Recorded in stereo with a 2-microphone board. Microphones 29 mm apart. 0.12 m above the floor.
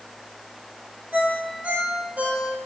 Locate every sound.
1.1 s a ringtone: 60° right (ahead or behind), 1.5 m